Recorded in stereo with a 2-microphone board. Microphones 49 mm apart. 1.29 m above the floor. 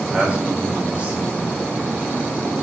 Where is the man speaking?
25° right (ahead or behind), 4.5 m.